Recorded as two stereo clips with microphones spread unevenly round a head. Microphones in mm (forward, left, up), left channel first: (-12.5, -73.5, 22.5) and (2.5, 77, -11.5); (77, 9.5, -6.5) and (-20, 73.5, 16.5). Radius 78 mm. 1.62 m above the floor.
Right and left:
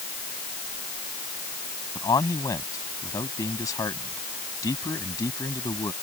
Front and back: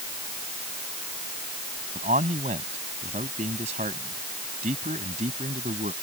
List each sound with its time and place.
1.9 s a man speaking: 165° right